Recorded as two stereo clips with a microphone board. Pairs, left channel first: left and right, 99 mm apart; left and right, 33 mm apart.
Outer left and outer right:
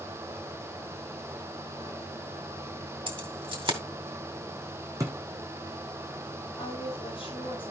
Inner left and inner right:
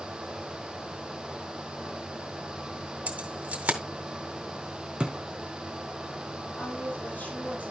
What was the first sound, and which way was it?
Keys jangling, 55° right (ahead or behind).